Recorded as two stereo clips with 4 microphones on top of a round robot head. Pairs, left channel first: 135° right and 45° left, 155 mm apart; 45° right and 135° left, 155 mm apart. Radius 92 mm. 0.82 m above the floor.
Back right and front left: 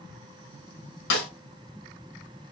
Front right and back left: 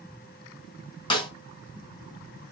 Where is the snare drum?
110° right, 2.5 m.